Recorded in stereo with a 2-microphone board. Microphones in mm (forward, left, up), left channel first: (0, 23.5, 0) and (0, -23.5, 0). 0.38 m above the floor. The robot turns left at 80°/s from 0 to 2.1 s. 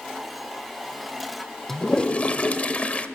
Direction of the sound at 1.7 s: 175° left.